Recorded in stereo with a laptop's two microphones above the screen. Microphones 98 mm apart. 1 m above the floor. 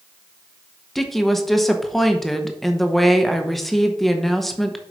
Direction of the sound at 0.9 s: Centre (ahead or behind).